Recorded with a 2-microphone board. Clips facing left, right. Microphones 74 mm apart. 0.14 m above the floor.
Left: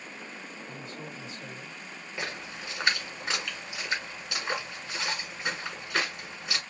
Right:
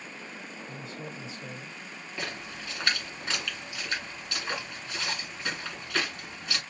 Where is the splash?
15° left (ahead or behind), 1.8 m.